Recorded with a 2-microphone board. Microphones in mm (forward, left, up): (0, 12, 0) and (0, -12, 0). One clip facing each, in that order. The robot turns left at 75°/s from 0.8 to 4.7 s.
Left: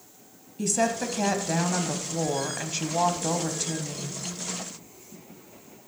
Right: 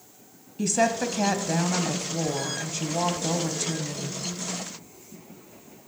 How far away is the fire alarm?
I don't hear a fire alarm.